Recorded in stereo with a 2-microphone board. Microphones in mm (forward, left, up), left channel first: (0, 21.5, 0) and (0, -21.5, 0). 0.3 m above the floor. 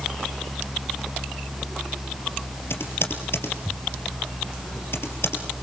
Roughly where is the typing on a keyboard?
Left.